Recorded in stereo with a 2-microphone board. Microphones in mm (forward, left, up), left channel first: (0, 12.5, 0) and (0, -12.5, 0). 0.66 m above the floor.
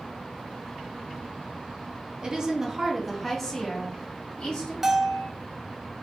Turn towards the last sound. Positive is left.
turn(degrees=-15)  # may be behind; listen again after turning